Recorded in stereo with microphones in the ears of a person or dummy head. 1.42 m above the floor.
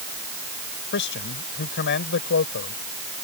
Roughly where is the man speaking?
Left.